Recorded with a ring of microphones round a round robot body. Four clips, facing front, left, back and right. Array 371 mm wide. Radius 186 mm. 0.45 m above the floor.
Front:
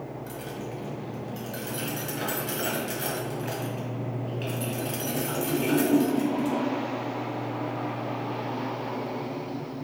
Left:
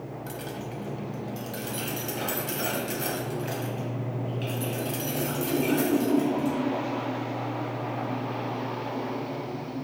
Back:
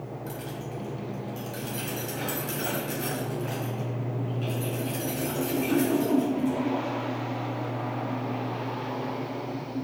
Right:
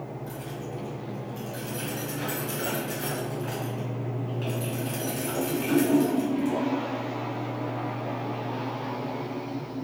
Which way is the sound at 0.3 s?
90° left.